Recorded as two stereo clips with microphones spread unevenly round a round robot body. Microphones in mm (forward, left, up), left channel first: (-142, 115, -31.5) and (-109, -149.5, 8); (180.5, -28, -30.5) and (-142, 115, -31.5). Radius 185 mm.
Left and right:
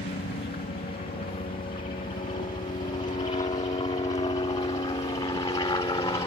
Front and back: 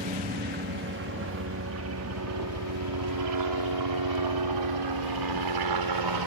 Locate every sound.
0.0 s a helicopter: 115° left; by 6.3 s 170° left